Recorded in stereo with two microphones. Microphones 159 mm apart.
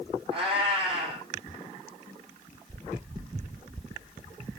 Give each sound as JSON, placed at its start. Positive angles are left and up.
{"t": 0.3, "sound": "a cat meowing", "side_deg": -30, "distance_m": 2.0}